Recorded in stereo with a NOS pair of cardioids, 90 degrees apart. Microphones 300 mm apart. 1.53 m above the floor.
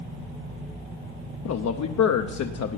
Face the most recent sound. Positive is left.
turn(degrees=65)